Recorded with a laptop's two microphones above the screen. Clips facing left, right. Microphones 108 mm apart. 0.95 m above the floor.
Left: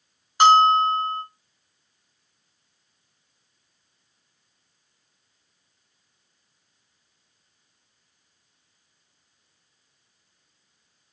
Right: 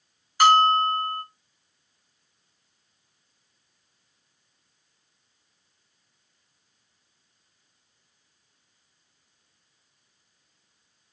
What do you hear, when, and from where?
0.4 s a bell: 25° left (ahead or behind), 0.7 m